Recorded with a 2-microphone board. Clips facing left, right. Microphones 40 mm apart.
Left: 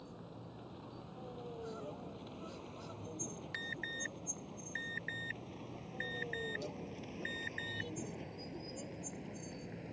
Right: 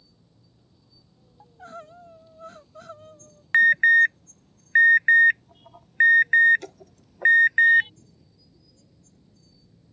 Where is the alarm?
65° right (ahead or behind).